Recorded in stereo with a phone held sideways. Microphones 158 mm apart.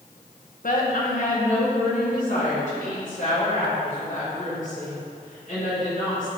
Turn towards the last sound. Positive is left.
turn(degrees=55)  # may be behind; listen again after turning